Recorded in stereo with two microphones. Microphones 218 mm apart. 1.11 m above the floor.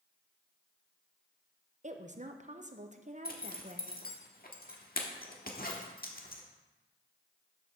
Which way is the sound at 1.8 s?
35° right (ahead or behind).